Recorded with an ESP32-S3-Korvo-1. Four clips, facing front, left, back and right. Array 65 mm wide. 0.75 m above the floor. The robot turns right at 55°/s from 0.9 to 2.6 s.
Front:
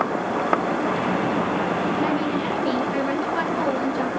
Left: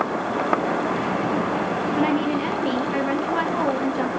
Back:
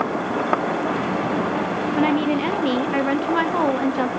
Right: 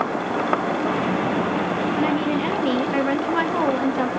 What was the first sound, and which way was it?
A woman speaking, 165° left.